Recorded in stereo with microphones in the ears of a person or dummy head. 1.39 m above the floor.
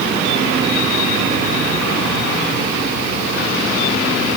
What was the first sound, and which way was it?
Only background noise.